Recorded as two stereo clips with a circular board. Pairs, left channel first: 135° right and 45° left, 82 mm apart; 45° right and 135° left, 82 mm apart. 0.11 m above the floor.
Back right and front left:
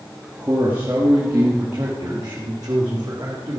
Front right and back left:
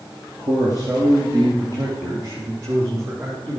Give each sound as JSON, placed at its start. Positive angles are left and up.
{"t": 0.4, "sound": "a man speaking", "azimuth_deg": 110, "distance_m": 3.0}